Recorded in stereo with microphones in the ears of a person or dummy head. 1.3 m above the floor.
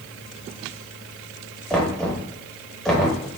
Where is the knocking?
Centre (ahead or behind), 1.2 m.